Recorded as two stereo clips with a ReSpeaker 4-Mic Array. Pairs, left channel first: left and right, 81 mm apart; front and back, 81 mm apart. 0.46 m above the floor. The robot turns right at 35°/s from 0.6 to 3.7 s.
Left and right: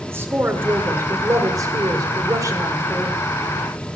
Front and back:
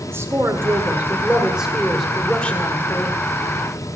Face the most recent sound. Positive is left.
turn(degrees=-30)